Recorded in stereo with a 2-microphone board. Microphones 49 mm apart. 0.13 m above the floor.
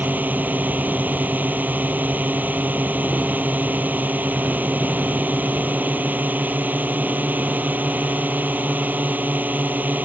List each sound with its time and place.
0.0 s a drone: 40° right (ahead or behind)